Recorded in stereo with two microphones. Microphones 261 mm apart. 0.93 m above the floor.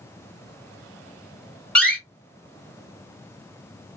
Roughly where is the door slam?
Centre.